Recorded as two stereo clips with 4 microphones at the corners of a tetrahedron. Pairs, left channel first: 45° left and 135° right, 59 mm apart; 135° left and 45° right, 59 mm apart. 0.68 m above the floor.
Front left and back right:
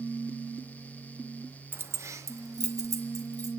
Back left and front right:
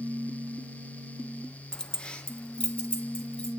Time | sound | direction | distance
1.7 | keys jangling | 155° right | 0.5 m